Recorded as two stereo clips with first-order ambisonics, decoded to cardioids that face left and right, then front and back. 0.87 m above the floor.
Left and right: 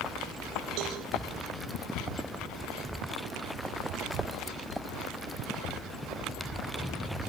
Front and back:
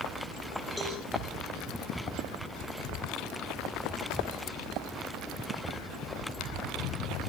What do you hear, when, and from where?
0.8 s a cowbell: 80° right, 8 m